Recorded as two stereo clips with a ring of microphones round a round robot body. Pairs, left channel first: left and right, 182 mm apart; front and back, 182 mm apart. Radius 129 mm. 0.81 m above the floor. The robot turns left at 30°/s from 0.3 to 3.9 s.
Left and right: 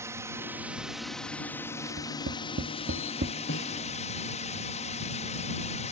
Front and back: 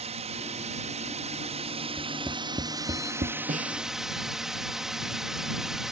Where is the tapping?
85° right; by 3.3 s 125° right.